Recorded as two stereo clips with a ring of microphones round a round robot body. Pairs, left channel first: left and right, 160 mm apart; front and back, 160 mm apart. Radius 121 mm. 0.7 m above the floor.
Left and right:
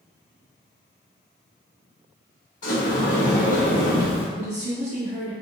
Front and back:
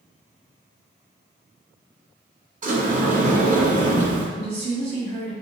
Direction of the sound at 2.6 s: 140° left.